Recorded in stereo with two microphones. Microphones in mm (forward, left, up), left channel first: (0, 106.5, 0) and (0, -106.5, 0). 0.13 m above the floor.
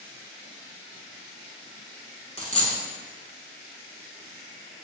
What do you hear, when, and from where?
2.4 s a dropped coin: 30° left (ahead or behind), 0.6 m